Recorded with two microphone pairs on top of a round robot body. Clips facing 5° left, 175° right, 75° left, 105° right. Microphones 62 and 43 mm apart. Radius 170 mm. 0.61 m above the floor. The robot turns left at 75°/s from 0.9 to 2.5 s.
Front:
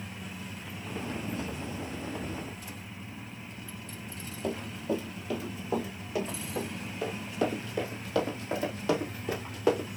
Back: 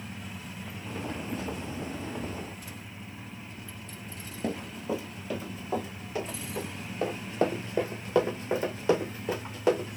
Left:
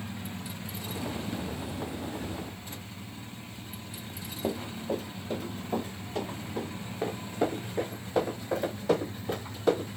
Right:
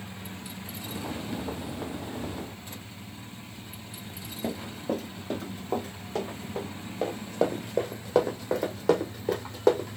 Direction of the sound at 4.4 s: 135° right.